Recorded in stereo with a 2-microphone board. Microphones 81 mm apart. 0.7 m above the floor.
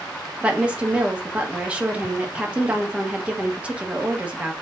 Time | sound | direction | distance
0.4 | a woman speaking | 15° right (ahead or behind) | 1.1 m